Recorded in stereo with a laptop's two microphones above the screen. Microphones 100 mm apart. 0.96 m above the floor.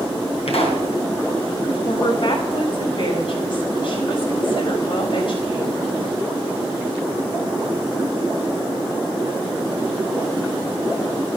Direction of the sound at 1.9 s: 55° left (ahead or behind).